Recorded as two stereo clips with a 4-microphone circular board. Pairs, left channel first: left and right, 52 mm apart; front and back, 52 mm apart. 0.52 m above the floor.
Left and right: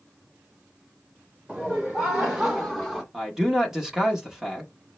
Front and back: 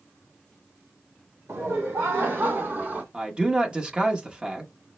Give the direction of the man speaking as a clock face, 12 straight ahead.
5 o'clock.